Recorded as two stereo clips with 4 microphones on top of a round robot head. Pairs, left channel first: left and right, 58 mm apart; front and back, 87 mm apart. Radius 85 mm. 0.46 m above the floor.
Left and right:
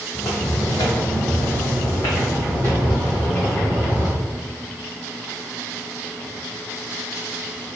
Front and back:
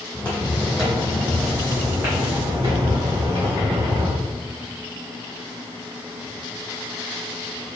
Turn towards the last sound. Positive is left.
turn(degrees=140)